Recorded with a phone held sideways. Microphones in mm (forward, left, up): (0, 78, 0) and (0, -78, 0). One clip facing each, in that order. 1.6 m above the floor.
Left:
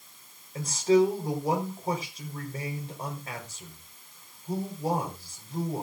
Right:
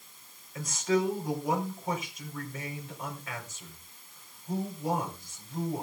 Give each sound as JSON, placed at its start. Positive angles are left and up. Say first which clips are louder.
{"t": 0.6, "sound": "a man speaking", "louder": "left 6 dB", "side_deg": 35, "distance_m": 4.5}